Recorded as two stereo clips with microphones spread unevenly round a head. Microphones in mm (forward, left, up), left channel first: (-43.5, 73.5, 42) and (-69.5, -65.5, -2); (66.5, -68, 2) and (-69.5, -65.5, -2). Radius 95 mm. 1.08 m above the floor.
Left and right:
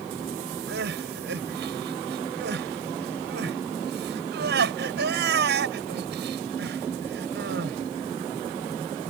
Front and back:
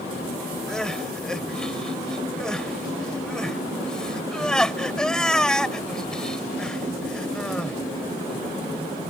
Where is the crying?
85° right.